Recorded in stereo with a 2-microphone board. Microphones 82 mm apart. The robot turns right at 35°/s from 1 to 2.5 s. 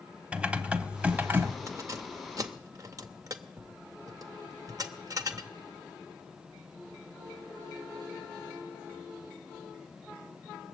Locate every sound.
0.3 s typing on a keyboard: 15° right (ahead or behind), 0.7 m; by 1.6 s 35° right (ahead or behind), 0.7 m
1.7 s keys jangling: 35° right (ahead or behind), 0.7 m; by 5.5 s 45° right (ahead or behind), 0.7 m